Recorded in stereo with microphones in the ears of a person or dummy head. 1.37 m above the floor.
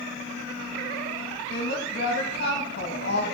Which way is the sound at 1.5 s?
55° left (ahead or behind).